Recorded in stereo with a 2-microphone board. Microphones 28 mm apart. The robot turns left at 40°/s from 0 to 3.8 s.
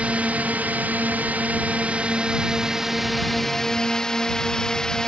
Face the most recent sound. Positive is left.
turn(degrees=155)